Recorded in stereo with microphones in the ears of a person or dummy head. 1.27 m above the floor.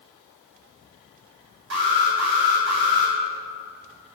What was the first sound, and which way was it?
An alarm, 60° right (ahead or behind).